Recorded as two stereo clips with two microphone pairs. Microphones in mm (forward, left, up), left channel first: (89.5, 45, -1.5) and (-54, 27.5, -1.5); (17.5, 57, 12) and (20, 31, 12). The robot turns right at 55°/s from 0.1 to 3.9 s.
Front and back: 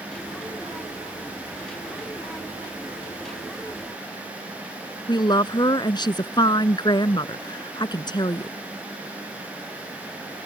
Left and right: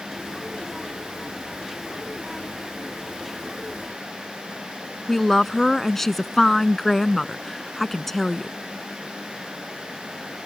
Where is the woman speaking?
25° left.